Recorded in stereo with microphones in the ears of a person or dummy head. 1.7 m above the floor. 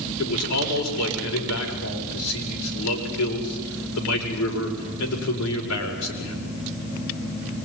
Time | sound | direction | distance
0.2 | a man speaking | 85° left | 6 m